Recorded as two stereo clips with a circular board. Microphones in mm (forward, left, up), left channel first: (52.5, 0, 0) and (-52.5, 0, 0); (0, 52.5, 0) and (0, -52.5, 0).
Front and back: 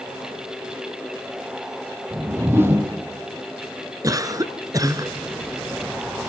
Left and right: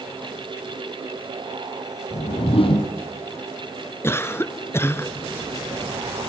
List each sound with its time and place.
2.1 s a whoosh: 115° left, 2.5 m
4.0 s a cough: 145° left, 1.6 m